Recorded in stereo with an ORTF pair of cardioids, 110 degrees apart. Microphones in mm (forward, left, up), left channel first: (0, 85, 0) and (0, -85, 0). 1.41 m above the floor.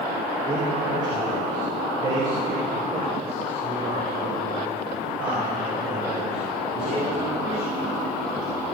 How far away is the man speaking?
About 6 m.